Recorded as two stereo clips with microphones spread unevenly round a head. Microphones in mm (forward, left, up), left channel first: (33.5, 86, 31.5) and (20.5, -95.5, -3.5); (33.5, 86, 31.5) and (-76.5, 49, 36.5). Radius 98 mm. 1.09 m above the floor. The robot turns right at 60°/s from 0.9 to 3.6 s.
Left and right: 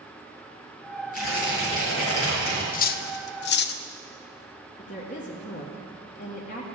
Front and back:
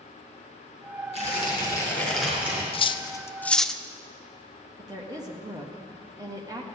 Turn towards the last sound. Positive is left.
turn(degrees=140)